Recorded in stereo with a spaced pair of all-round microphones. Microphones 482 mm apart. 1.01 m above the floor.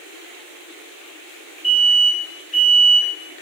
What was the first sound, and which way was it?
An alarm, 75° left (ahead or behind).